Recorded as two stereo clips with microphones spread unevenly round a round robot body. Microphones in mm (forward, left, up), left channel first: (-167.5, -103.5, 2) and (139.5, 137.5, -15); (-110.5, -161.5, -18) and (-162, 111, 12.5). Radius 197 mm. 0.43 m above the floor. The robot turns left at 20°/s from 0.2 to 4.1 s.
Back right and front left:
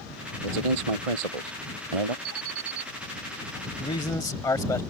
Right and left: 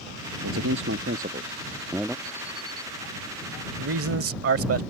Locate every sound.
0.4 s a man speaking: 45° left; by 2.1 s 10° left
2.2 s an alarm: 10° left; by 2.9 s 5° right
3.8 s a man speaking: 145° left; by 4.8 s 135° left